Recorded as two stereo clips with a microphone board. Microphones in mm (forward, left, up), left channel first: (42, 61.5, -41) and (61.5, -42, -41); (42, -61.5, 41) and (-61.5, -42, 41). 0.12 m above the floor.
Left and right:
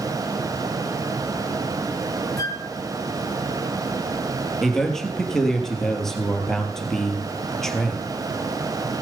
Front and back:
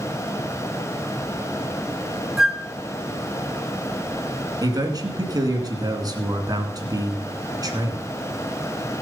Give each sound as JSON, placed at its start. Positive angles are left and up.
{"t": 2.4, "sound": "a flute", "azimuth_deg": 85, "distance_m": 1.3}
{"t": 4.6, "sound": "a man speaking", "azimuth_deg": -175, "distance_m": 2.0}